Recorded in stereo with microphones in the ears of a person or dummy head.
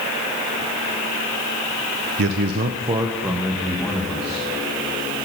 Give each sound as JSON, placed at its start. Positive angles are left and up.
{"t": 2.2, "sound": "a man speaking", "side_deg": -60, "distance_m": 0.7}